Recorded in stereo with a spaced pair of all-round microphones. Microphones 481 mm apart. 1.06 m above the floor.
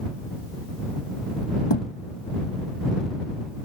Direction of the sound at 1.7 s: 60° left (ahead or behind).